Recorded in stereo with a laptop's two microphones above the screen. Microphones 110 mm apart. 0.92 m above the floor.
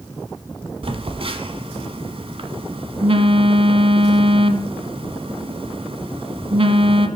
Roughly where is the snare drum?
No snare drum in this recording.